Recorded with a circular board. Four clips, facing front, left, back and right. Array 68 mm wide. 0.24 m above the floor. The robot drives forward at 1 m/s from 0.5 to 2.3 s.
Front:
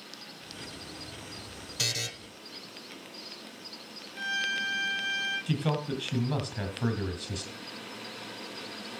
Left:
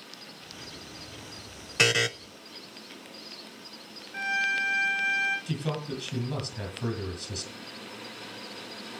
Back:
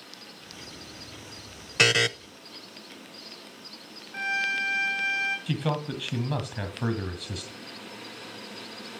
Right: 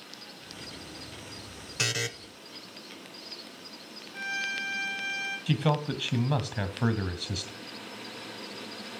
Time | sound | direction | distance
1.8 | a buzzer | 150° left | 0.6 m
4.1 | a violin | 150° left | 4.5 m
5.5 | a man speaking | 105° right | 1.7 m